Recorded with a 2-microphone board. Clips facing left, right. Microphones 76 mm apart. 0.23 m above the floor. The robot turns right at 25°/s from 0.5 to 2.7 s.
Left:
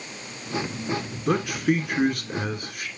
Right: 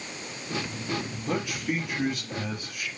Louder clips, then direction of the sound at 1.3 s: Left 7 dB; 85° left.